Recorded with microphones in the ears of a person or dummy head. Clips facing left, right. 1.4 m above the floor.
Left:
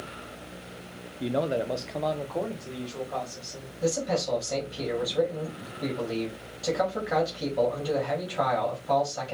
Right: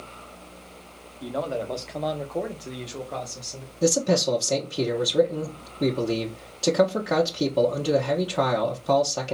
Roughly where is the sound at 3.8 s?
Right.